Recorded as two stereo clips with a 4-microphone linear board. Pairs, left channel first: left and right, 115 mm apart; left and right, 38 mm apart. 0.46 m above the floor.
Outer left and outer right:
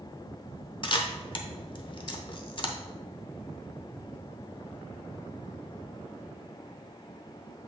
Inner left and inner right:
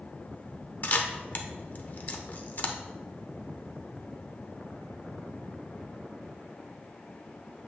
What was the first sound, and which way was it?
A camera shutter, 45° left (ahead or behind).